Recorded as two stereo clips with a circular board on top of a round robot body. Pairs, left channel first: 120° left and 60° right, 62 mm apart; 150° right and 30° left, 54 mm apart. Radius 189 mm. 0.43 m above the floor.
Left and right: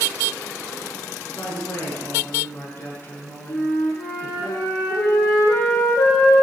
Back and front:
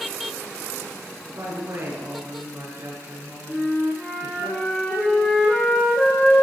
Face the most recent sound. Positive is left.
turn(degrees=125)